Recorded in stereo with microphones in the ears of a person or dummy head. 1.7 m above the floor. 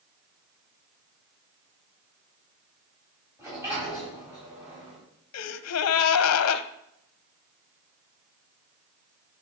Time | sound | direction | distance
3.4 | a sliding door | 10° right (ahead or behind) | 4 m
5.3 | a gasp | 85° left | 0.5 m